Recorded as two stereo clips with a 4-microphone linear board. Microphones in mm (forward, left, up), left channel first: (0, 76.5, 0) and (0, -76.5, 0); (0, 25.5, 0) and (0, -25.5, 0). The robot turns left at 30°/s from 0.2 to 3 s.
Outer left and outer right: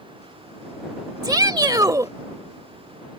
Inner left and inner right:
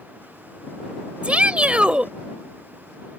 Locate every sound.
1.2 s a shout: 25° right (ahead or behind); by 2.1 s 20° right (ahead or behind)